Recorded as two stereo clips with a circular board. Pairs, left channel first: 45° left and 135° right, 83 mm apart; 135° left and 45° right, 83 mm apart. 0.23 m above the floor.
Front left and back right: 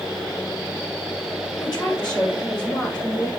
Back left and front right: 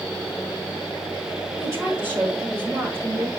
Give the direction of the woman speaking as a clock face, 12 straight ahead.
12 o'clock.